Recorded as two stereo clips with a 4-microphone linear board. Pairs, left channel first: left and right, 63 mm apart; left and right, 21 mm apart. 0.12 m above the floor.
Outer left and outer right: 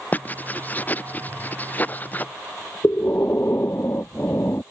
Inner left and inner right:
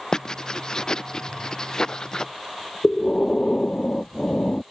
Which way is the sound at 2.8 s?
40° left (ahead or behind).